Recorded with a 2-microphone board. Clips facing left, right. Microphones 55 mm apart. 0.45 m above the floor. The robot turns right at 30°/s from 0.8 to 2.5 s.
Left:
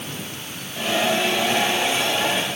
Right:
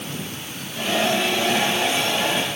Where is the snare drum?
I don't hear a snare drum.